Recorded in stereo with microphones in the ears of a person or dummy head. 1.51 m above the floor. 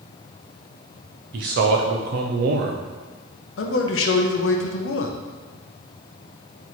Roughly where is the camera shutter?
No camera shutter in this recording.